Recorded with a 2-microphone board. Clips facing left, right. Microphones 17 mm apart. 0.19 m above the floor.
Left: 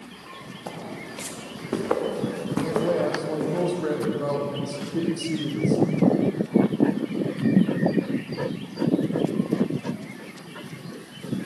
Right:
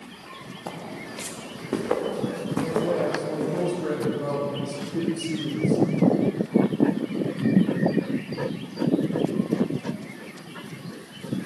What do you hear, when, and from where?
0.7 s footsteps: 10° right (ahead or behind), 4.5 m; by 3.6 s 20° left (ahead or behind), 7.5 m
2.6 s a man speaking: 45° left (ahead or behind), 6.5 m